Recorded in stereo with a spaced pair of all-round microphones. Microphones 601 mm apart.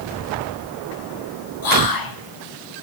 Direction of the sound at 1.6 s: 35° left (ahead or behind).